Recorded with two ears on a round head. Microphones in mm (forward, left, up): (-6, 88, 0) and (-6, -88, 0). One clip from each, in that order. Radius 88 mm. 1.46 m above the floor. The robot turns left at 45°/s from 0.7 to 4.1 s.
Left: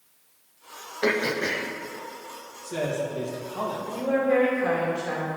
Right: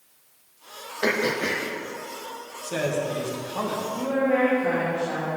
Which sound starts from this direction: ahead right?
A man speaking, at 2.6 s.